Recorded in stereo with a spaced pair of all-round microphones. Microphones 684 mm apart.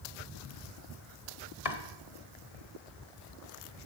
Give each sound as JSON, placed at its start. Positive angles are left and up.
{"t": 1.6, "sound": "chopping", "side_deg": 55, "distance_m": 1.4}